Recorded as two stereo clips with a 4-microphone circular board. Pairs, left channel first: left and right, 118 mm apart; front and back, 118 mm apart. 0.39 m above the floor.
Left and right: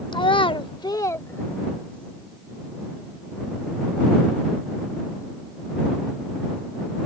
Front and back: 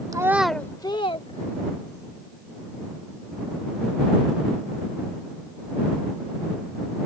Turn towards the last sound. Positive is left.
turn(degrees=10)